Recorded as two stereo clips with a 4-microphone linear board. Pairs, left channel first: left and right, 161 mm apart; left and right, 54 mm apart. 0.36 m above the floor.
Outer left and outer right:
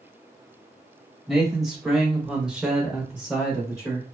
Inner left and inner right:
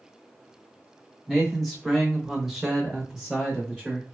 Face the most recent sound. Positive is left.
turn(degrees=-5)  # may be behind; listen again after turning